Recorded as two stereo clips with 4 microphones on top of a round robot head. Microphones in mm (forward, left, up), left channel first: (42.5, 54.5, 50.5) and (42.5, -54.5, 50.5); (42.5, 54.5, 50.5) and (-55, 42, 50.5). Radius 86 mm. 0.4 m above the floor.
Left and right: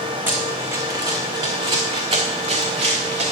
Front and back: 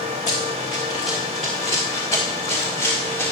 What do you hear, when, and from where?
0.3 s running footsteps: 15° right, 2 m; by 3.3 s 65° right, 3 m